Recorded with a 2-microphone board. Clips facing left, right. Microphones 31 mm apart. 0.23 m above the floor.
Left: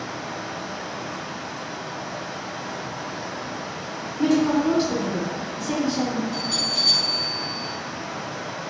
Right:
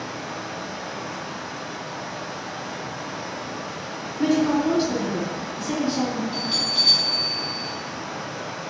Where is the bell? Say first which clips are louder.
Right 1 dB; 30° right (ahead or behind), 1.6 m.